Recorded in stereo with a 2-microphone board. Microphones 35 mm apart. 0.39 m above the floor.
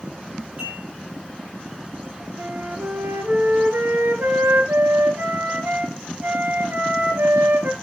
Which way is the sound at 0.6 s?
45° right (ahead or behind).